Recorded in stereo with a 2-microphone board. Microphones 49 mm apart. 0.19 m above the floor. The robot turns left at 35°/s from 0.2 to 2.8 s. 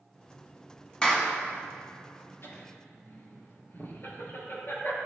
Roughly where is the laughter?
Left.